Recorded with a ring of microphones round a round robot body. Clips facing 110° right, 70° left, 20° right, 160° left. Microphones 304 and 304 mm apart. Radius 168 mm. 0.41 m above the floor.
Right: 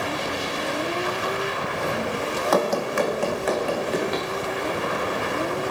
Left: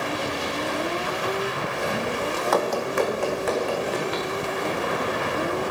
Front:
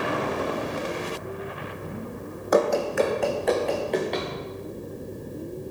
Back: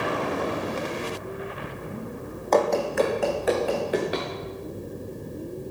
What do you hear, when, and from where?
2.5 s running footsteps: 105° right, 1.4 m; by 4.3 s 120° right, 4 m